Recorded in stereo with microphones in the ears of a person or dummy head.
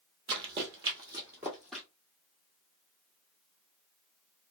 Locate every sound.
0.3 s running footsteps: 30° right (ahead or behind), 1.5 m; by 1.9 s centre (ahead or behind), 1.3 m